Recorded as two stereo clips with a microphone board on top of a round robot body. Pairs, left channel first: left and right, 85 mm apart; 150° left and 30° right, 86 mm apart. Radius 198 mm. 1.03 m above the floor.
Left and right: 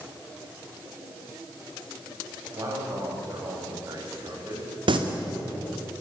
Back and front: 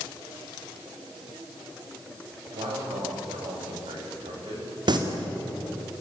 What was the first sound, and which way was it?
A man speaking, 40° right.